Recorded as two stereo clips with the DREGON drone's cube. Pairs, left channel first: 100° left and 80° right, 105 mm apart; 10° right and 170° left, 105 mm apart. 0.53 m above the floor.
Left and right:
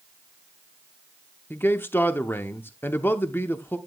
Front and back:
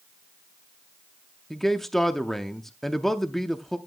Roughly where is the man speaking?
Left.